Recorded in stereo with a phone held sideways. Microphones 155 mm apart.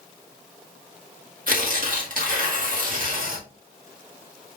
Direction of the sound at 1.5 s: 65° right (ahead or behind).